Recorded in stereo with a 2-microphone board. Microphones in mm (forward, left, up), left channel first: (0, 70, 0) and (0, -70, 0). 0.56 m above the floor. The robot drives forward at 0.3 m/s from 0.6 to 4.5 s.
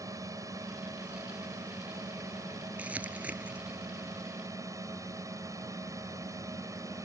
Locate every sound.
0.0 s a drone: 25° right (ahead or behind); by 7.0 s 20° right (ahead or behind)
2.8 s crumpling: 10° right (ahead or behind)